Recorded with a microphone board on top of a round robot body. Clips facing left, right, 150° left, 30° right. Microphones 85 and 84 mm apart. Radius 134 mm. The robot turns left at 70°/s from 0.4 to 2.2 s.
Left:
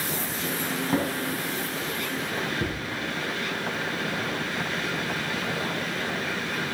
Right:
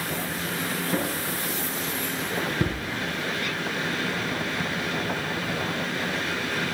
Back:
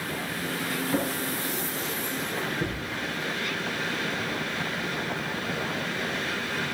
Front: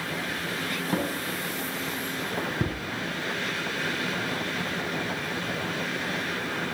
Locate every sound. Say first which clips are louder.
0.9 s a drawer: left 4 dB, even; 35° left, 4 m; by 2.8 s 55° right, 4 m